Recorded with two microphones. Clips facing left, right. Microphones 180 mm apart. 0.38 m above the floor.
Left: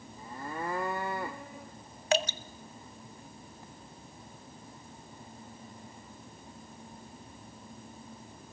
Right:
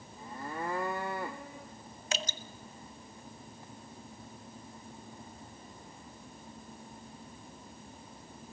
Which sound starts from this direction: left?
Dripping, at 2.1 s.